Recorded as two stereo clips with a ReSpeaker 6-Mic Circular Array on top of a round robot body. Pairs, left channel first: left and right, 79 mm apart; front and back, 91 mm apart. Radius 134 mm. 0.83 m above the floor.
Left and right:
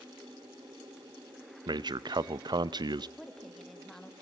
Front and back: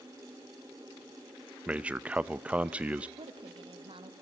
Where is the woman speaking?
175° left, 1.9 m.